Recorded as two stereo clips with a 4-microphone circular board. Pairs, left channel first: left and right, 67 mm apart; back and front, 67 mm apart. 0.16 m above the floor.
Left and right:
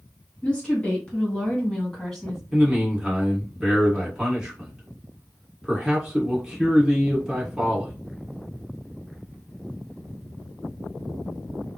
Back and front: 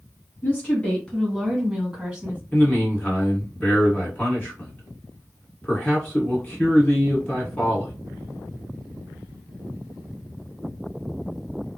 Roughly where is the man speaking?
Behind.